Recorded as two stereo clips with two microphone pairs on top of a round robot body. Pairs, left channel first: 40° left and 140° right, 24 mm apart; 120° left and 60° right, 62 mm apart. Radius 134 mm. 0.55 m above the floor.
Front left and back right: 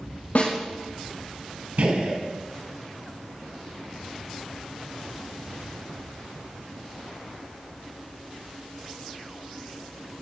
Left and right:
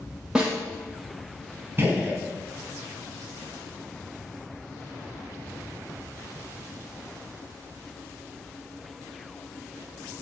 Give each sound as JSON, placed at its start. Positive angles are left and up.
{"t": 0.3, "sound": "a snare drum", "azimuth_deg": 20, "distance_m": 7.5}
{"t": 1.8, "sound": "a gunshot", "azimuth_deg": -115, "distance_m": 5.5}